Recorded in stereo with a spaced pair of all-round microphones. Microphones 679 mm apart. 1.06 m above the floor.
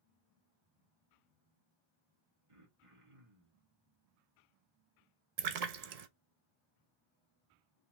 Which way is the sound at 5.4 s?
65° right (ahead or behind).